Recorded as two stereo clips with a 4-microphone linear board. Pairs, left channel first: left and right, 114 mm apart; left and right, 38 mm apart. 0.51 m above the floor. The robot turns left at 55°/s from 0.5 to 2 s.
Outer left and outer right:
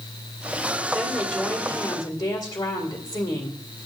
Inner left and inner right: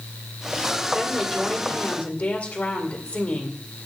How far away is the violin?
I don't hear a violin.